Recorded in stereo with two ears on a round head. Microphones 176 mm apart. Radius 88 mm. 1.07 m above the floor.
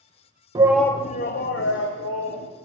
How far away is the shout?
About 0.6 m.